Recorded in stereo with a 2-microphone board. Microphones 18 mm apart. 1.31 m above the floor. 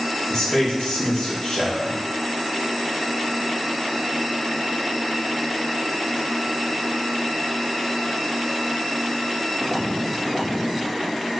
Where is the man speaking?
45° left (ahead or behind), 0.7 m.